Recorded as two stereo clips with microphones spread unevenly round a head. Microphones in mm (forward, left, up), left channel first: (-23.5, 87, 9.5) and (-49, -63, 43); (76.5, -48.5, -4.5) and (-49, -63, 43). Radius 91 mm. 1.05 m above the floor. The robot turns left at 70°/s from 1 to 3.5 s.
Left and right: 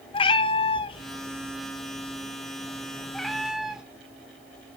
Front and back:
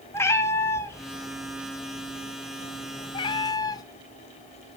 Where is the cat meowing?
110° left, 0.7 m; by 3.8 s 65° right, 0.7 m.